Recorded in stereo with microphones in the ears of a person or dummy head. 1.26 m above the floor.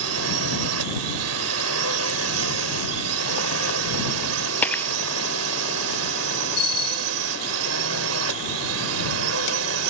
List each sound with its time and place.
0.0 s a drone: 75° right (ahead or behind); by 9.9 s 70° right (ahead or behind)
4.6 s breaking glass: 10° left (ahead or behind)
6.6 s a bicycle bell: 30° left (ahead or behind)